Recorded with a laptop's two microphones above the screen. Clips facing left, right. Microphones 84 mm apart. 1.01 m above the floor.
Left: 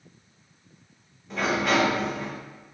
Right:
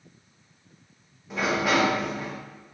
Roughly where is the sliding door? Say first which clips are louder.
Even; centre.